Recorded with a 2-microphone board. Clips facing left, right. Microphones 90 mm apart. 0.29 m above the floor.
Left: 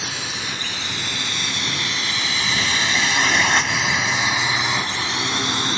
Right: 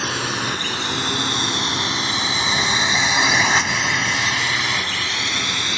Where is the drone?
55° right (ahead or behind); by 5.8 s 35° left (ahead or behind).